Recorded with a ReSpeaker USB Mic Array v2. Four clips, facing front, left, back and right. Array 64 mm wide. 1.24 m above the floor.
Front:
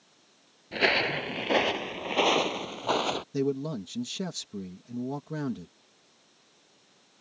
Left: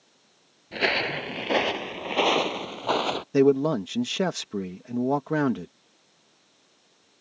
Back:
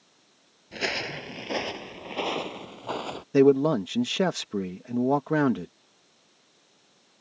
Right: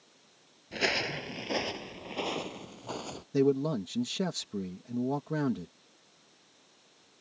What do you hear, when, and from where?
0.7 s footsteps: 40° left; by 3.2 s 70° left
3.3 s a man speaking: 145° left